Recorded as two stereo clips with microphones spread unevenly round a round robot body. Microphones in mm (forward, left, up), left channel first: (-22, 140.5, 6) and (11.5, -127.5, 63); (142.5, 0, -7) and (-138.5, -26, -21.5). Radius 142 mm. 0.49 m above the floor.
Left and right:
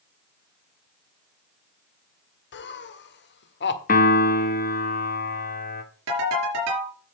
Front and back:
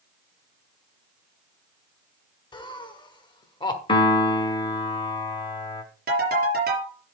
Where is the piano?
75° left, 1.3 m.